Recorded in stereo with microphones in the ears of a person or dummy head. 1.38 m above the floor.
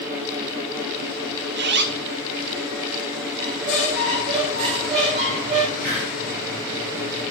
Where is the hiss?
60° right (ahead or behind), 4 m.